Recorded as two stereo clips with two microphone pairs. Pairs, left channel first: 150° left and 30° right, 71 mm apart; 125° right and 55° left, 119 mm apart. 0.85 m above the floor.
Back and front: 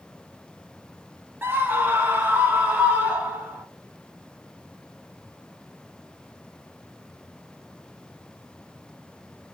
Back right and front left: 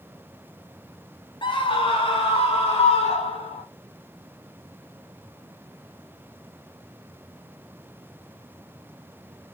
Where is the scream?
85° right, 1.3 m; by 3.6 s 100° right, 2.5 m.